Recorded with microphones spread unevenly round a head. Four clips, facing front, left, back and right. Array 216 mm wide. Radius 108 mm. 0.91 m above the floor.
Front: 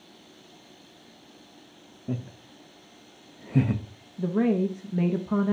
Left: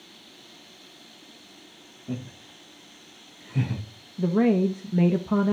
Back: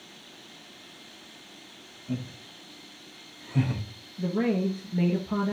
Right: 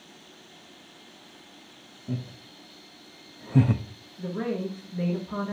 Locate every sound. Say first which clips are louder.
2.1 s laughter: left 1 dB, even; straight ahead, 1.8 m; by 3.8 s 70° right, 0.9 m
4.2 s a woman speaking: left 9 dB, front 2 dB; 70° left, 0.8 m